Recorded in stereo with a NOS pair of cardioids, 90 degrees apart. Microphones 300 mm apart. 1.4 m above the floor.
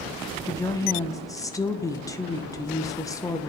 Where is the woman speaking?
10° left, 0.9 m.